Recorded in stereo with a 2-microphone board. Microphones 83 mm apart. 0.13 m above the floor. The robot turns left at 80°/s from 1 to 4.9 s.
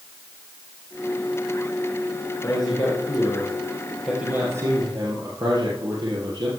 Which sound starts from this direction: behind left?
A man speaking, at 2.4 s.